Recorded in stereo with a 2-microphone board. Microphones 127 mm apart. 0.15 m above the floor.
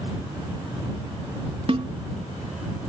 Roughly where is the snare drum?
Right.